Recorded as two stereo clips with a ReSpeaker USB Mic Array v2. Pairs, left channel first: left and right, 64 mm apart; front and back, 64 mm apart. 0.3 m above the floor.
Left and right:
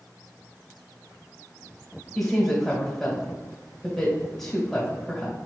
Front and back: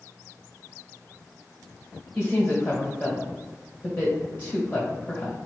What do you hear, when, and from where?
2.1 s a woman speaking: 20° left, 1.3 m